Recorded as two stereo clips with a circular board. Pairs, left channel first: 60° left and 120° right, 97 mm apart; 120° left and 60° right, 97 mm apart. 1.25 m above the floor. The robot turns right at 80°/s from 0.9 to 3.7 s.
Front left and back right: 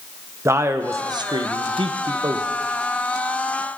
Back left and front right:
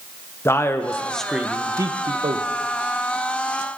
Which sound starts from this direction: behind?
A man speaking, at 0.5 s.